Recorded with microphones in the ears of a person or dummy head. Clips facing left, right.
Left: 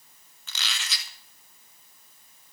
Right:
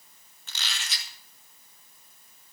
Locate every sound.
0.5 s a squeak: 65° left (ahead or behind), 1.4 m